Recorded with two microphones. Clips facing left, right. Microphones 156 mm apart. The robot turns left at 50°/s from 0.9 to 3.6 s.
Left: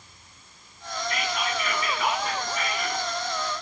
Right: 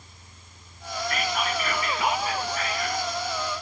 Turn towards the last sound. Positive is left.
turn(degrees=120)